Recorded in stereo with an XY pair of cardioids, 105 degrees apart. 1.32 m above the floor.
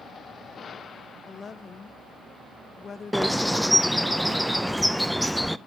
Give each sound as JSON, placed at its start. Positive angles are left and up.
{"t": 1.3, "sound": "a woman speaking", "azimuth_deg": 45, "distance_m": 0.9}
{"t": 3.1, "sound": "a bird", "azimuth_deg": 5, "distance_m": 0.6}